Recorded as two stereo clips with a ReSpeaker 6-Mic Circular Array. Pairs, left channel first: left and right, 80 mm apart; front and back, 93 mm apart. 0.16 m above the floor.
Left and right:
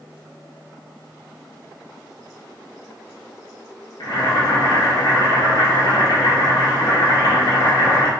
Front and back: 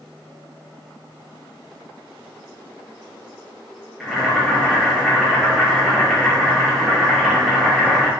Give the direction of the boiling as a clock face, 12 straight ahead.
9 o'clock.